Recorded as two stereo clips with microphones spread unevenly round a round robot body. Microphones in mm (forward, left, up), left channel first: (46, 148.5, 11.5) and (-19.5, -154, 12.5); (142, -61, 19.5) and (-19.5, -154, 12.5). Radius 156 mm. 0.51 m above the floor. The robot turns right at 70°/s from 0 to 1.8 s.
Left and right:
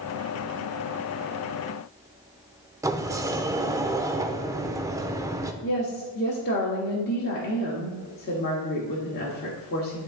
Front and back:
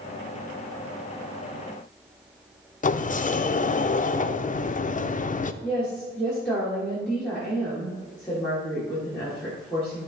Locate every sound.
2.8 s a sliding door: 25° right, 0.5 m
5.6 s a woman speaking: 115° left, 1.4 m